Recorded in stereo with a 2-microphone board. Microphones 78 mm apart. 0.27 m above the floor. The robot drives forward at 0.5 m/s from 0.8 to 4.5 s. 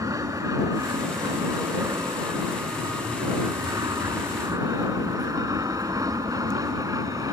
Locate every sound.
0.0 s an aircraft: 45° right (ahead or behind); by 7.3 s 50° right (ahead or behind)